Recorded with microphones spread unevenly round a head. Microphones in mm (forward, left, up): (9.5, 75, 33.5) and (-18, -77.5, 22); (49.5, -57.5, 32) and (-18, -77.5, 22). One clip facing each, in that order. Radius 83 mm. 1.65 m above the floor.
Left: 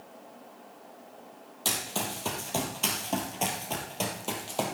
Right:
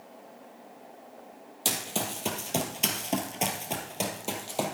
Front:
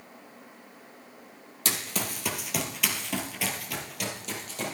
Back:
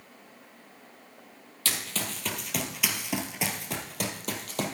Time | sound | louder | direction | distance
1.6 | running footsteps | right 1 dB, front 1 dB | 30° right | 2 m